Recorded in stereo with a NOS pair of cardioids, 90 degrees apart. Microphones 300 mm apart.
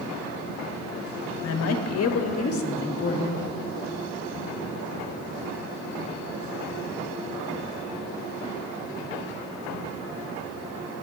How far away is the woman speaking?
About 1.5 m.